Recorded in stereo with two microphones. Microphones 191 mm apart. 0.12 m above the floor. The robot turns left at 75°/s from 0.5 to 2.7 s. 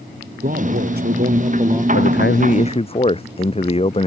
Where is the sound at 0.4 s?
60° right; by 1.8 s 160° right.